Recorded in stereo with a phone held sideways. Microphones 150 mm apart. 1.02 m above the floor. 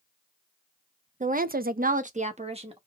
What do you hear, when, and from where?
1.2 s a woman speaking: 55° right (ahead or behind), 0.5 m; by 2.8 s 40° right (ahead or behind), 1.1 m